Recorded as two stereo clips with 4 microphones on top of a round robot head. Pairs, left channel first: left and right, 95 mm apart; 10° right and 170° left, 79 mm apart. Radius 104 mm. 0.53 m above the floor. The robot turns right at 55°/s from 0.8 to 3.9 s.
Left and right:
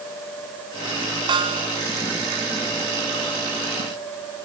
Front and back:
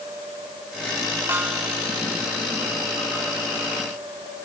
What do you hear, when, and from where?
1.3 s a snare drum: 130° right; by 1.7 s 105° right